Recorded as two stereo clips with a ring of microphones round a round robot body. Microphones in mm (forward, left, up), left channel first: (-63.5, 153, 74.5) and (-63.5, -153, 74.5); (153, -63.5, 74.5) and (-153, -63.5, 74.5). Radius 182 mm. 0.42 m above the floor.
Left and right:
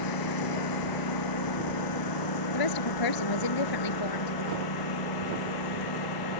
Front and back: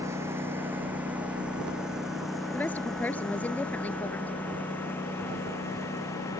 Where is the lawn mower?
100° left; by 6.4 s 80° left.